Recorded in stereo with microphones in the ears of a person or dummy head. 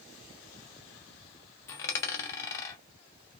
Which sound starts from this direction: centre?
A dropped coin, at 1.7 s.